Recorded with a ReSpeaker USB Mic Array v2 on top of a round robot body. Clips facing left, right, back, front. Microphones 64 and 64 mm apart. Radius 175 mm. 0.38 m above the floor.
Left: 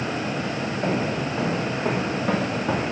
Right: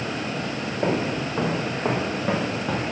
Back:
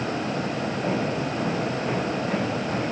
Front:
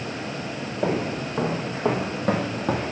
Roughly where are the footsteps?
Ahead right.